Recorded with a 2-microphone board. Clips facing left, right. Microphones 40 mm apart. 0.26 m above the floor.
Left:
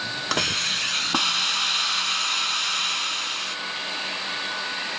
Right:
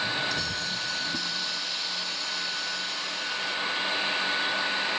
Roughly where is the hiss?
Left.